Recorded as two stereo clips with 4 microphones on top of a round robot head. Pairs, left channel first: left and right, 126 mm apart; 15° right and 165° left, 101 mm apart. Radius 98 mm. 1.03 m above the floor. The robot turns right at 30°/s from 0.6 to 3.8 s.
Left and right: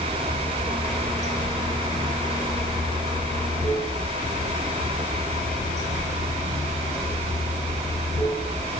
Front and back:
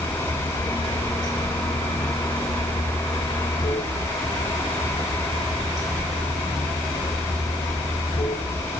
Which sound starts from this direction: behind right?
Running water, at 0.0 s.